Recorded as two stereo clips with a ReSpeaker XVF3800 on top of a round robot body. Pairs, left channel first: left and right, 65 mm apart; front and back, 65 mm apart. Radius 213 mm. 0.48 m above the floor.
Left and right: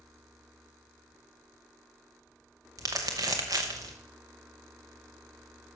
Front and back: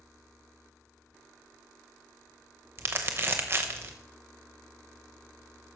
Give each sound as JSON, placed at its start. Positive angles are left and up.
{"t": 2.8, "sound": "crumpling", "azimuth_deg": -125, "distance_m": 0.5}